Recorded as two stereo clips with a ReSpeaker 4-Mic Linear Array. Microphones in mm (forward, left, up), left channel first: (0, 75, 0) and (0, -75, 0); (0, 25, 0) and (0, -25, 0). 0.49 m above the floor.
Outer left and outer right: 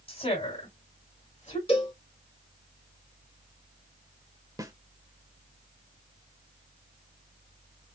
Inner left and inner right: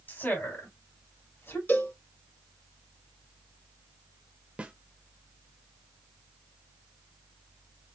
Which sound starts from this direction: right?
A snare drum, at 4.6 s.